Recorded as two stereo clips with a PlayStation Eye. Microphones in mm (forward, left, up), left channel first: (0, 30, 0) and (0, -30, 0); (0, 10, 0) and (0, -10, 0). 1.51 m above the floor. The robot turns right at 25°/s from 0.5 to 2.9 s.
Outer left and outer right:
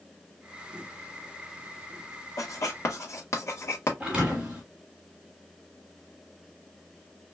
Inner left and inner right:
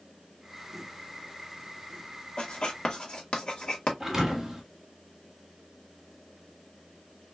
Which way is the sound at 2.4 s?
60° left (ahead or behind).